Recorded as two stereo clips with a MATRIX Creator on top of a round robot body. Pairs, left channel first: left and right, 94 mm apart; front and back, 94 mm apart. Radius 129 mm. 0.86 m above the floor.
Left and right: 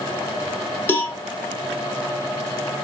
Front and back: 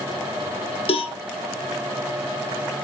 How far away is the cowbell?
About 0.6 m.